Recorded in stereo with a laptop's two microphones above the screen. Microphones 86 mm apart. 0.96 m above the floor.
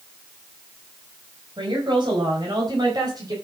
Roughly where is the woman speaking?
Right.